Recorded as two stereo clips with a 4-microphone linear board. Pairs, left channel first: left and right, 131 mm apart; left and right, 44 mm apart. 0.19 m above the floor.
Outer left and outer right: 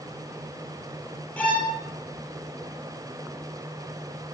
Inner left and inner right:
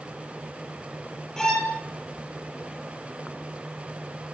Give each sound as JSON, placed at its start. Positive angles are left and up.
{"t": 1.4, "sound": "a violin", "side_deg": 10, "distance_m": 6.0}